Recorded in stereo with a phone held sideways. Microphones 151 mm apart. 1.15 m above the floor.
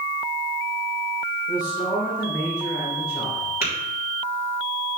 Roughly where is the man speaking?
Left.